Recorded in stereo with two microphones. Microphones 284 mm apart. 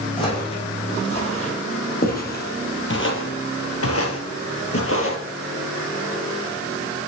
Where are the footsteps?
15° left (ahead or behind), 4 m; by 5.2 s 50° left (ahead or behind), 2 m.